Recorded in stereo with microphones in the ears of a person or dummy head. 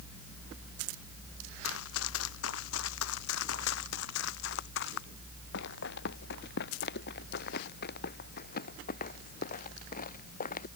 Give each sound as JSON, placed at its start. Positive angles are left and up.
{"t": 1.6, "sound": "running footsteps", "side_deg": 80}